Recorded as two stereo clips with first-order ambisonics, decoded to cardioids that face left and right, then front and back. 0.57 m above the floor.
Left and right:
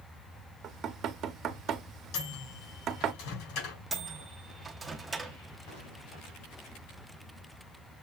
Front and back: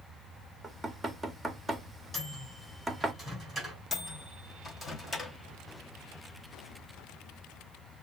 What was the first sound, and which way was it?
Knocking, 100° right.